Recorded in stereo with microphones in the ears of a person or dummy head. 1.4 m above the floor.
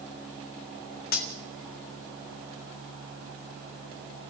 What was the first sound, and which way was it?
Cutlery clinking, 55° left (ahead or behind).